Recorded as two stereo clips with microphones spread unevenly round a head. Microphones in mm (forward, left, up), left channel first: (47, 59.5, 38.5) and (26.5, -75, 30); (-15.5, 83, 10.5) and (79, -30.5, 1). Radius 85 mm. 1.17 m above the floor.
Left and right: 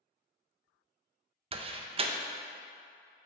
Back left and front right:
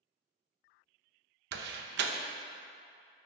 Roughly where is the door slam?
Ahead right.